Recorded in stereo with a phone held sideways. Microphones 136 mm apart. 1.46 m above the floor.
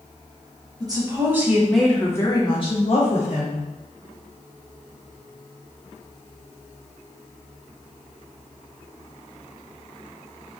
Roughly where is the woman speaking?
Right.